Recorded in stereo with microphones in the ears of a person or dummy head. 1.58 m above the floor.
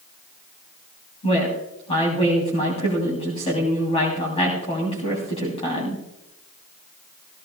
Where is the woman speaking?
35° left (ahead or behind), 3 m.